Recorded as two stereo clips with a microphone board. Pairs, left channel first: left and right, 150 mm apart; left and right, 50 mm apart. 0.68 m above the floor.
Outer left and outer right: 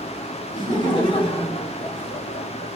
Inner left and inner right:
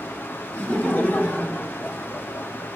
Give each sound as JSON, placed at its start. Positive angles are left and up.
{"t": 0.5, "sound": "laughter", "side_deg": 25, "distance_m": 1.8}